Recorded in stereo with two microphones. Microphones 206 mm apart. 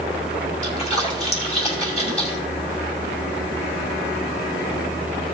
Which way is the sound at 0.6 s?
30° left (ahead or behind).